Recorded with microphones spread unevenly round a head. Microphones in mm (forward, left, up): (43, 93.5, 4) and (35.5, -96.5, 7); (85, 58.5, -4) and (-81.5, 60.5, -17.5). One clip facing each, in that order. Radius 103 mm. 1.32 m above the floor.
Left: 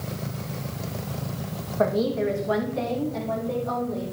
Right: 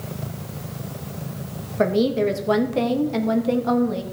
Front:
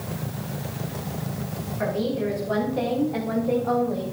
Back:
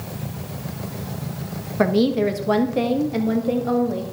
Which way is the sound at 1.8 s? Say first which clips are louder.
Right 4 dB, back 8 dB; 160° right.